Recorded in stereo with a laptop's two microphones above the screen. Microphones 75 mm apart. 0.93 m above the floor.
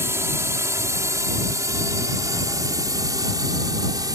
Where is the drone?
40° right (ahead or behind); by 4.2 s 60° right (ahead or behind).